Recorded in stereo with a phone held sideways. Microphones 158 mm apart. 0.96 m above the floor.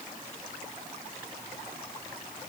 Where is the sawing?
I don't hear sawing.